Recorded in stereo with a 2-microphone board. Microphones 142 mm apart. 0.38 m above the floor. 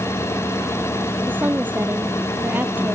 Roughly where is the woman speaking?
Centre.